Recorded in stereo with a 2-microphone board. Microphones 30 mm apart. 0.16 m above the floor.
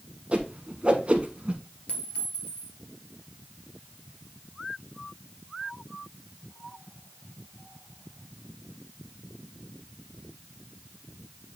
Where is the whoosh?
35° right (ahead or behind), 1.1 m.